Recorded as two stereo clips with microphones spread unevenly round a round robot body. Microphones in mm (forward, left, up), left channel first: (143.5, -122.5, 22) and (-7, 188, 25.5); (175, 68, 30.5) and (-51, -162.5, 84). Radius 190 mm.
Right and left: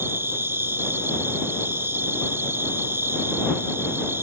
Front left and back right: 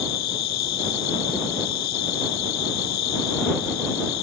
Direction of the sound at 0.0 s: 30° left.